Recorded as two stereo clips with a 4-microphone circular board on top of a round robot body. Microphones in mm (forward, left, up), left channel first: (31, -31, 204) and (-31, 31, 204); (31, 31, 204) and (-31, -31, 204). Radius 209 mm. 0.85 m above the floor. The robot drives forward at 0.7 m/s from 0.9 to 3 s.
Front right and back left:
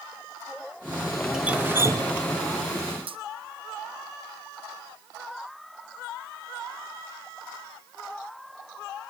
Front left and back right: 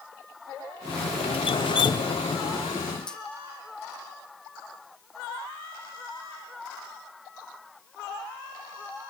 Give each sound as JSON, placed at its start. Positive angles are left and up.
{"t": 1.3, "sound": "dripping", "azimuth_deg": 55, "distance_m": 1.0}